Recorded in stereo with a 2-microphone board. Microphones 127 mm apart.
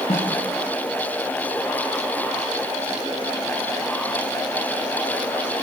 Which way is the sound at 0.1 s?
45° left (ahead or behind).